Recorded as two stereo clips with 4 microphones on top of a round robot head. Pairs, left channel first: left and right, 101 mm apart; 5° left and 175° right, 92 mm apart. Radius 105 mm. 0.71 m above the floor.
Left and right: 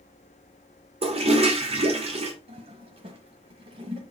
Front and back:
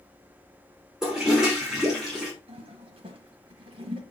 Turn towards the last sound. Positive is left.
turn(degrees=-135)